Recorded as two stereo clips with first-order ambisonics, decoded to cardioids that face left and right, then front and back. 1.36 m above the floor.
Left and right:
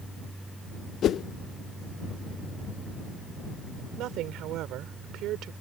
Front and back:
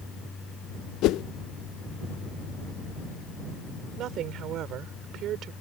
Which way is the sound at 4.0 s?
130° right.